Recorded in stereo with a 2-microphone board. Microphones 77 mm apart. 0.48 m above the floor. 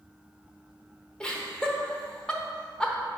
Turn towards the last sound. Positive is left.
turn(degrees=10)  # may be behind; listen again after turning